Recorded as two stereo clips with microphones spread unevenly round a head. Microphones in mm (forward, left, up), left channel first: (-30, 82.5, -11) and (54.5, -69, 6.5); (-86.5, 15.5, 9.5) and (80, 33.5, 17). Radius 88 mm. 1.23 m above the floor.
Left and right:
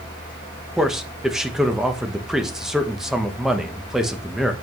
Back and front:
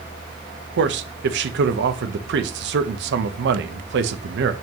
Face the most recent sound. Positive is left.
turn(degrees=25)